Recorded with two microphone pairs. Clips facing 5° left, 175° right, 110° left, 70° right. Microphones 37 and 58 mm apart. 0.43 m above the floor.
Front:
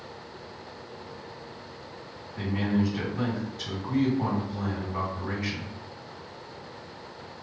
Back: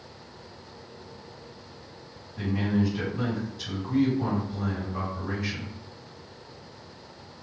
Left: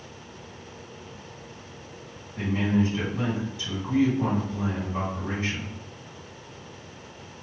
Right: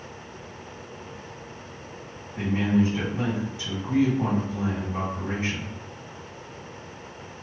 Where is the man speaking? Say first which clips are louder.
Even, right 2 dB; 5° right, 1.9 m.